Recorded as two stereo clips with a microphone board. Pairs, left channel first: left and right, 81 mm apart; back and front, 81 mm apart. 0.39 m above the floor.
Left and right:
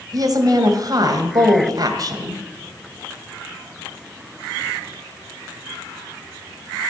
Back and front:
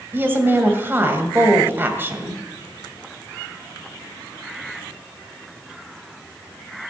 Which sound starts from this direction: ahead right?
A woman speaking, at 0.1 s.